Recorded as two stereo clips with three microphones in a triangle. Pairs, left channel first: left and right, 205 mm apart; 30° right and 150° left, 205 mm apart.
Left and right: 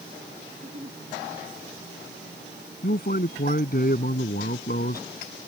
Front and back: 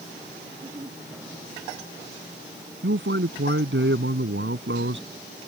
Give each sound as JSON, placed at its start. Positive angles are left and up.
{"t": 0.5, "sound": "a giggle", "azimuth_deg": -145}
{"t": 2.8, "sound": "a man speaking", "azimuth_deg": 130}